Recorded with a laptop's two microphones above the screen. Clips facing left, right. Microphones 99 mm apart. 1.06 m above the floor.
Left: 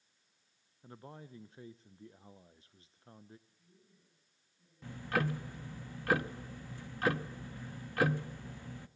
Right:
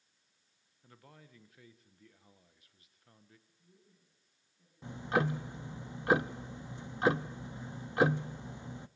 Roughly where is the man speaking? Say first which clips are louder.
Left 8 dB; left.